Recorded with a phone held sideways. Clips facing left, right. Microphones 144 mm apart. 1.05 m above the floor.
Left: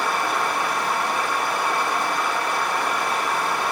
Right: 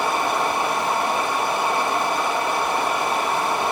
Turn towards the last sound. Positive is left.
turn(degrees=-25)  # may be behind; listen again after turning